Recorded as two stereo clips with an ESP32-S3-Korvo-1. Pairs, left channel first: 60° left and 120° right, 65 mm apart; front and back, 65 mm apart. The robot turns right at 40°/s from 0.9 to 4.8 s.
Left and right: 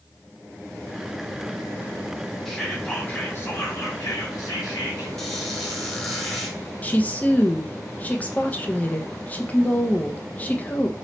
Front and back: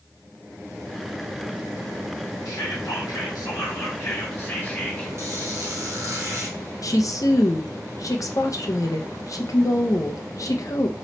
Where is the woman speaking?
Straight ahead, 0.6 m.